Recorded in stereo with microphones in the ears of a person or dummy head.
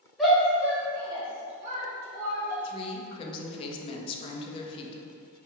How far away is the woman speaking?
About 0.5 m.